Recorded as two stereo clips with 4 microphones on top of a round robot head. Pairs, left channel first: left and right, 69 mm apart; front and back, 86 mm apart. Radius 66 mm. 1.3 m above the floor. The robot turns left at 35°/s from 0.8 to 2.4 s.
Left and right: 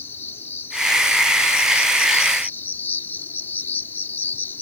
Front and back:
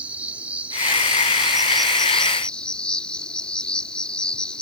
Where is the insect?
125° left; by 4.6 s 70° left.